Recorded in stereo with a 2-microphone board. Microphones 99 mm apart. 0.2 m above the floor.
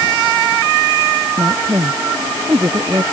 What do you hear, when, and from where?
1.4 s a woman speaking: 30° right (ahead or behind)